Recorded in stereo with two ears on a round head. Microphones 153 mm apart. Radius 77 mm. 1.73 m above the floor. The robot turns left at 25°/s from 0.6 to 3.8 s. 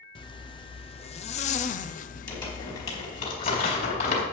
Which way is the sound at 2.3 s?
25° left (ahead or behind).